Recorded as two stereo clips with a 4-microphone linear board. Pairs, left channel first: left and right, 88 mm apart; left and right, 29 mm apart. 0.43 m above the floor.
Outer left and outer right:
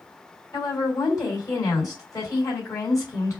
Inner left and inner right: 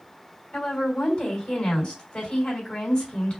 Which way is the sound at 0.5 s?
40° left (ahead or behind).